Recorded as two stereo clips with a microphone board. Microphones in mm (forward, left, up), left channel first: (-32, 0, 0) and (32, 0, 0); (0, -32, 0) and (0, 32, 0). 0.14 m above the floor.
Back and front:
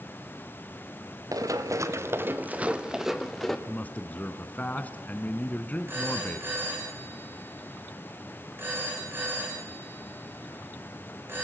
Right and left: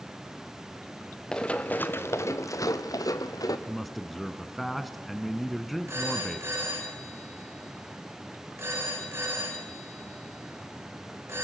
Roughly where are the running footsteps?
Ahead.